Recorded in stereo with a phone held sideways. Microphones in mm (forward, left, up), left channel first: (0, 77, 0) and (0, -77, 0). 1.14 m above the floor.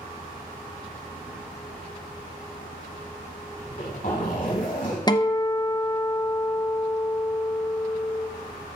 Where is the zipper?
65° left (ahead or behind), 4 m.